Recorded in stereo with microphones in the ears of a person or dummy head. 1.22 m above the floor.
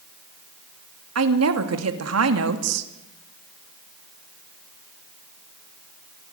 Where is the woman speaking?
80° right, 2.5 m.